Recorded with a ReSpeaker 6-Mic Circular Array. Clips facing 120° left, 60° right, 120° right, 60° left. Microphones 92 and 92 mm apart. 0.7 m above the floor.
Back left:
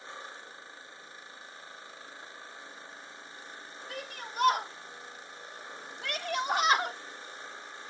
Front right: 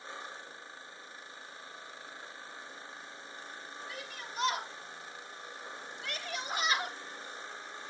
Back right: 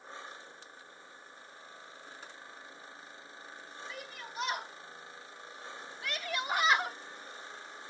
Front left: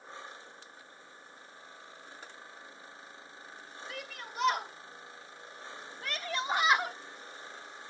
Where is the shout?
80° left, 3.5 m; by 7.0 s 150° left, 1.2 m.